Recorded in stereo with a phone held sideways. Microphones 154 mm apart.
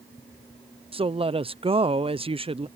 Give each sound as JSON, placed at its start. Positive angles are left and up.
{"t": 0.9, "sound": "a woman speaking", "side_deg": -35}